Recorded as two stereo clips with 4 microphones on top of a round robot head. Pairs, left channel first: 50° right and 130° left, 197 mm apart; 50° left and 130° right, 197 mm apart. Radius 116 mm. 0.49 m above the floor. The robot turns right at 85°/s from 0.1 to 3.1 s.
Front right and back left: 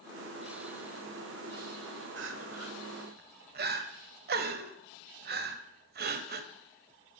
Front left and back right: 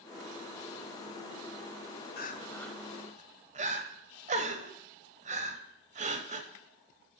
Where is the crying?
95° left, 0.7 m; by 6.5 s 175° left, 0.7 m.